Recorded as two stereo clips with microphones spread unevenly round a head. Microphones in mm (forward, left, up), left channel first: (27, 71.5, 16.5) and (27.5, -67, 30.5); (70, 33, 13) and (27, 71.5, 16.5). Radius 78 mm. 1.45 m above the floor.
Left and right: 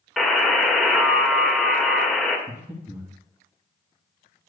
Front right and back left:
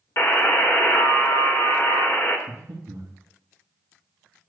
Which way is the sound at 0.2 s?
Straight ahead.